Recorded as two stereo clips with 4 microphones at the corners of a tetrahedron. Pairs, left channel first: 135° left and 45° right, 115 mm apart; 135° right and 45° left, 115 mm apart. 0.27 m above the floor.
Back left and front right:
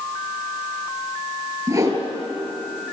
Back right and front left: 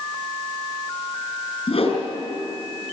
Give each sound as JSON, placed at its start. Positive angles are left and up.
{"t": 1.7, "sound": "a whoosh", "azimuth_deg": -100, "distance_m": 4.5}